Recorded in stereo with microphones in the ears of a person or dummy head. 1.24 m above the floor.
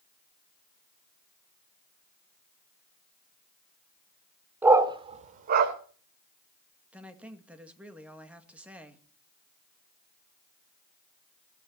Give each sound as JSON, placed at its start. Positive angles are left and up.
{"t": 4.6, "sound": "a dog barking", "side_deg": -15, "distance_m": 1.4}
{"t": 6.9, "sound": "a woman speaking", "side_deg": 0, "distance_m": 2.0}